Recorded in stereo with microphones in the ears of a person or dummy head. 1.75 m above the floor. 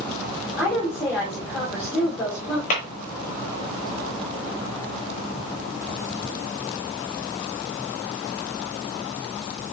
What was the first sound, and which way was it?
A woman speaking, 20° left (ahead or behind).